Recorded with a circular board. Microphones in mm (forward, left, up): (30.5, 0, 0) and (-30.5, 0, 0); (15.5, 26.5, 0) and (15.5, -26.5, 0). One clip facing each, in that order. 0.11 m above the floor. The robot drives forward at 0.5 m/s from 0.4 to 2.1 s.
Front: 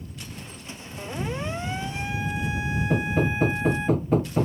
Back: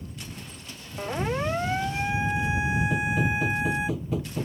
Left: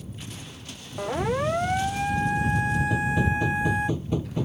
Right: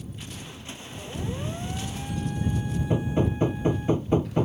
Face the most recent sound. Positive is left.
turn(degrees=-40)